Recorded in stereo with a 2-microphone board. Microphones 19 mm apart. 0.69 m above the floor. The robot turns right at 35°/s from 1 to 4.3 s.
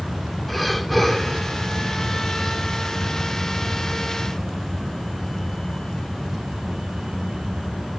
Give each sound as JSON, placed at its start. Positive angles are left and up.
{"t": 0.5, "sound": "breathing", "side_deg": 5, "distance_m": 1.3}